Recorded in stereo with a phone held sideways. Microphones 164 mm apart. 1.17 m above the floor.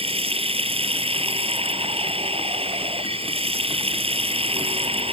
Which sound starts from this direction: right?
Running water, at 0.0 s.